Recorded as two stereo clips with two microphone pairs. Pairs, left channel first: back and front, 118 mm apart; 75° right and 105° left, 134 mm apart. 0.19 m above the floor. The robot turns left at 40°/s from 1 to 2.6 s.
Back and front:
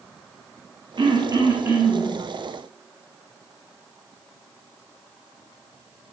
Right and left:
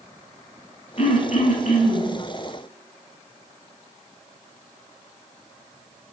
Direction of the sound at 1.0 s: 40° right.